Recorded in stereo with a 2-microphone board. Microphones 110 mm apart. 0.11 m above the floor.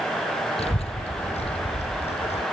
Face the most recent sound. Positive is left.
turn(degrees=75)  # may be behind; listen again after turning